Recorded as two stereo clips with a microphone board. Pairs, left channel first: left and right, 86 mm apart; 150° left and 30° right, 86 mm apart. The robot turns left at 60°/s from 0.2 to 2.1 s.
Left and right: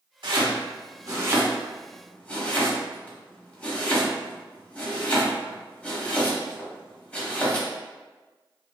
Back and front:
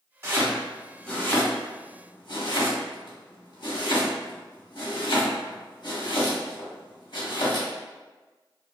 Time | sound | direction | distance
0.2 | chopping | 85° right | 0.8 m